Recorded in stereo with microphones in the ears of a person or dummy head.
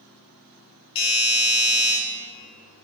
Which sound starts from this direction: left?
A doorbell, at 0.9 s.